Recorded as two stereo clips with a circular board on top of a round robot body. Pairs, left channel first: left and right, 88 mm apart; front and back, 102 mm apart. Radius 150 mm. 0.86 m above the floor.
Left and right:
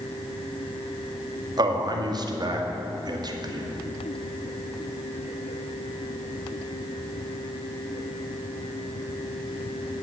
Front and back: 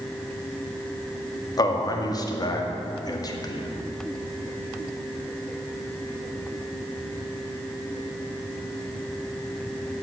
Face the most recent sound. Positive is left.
turn(degrees=-50)